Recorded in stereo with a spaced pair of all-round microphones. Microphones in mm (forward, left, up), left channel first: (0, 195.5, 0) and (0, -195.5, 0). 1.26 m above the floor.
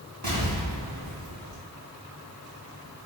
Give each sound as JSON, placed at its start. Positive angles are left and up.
{"t": 0.2, "sound": "an explosion", "side_deg": -60, "distance_m": 3.5}